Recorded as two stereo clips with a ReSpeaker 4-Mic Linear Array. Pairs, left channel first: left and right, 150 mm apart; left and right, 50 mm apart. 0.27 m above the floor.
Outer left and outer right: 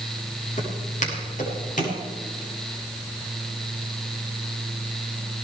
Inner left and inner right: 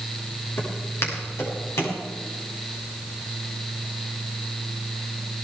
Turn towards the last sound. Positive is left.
turn(degrees=60)  # may be behind; listen again after turning